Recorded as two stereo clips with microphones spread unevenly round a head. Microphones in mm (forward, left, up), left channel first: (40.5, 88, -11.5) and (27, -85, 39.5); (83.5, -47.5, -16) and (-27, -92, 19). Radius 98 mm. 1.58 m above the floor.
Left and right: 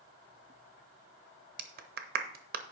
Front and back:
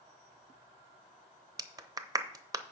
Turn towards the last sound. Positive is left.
turn(degrees=-110)